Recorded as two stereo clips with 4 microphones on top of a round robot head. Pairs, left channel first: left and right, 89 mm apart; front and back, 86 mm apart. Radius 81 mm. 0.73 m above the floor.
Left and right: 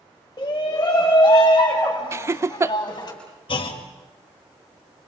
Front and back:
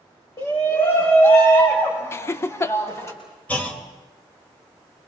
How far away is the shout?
About 4.5 m.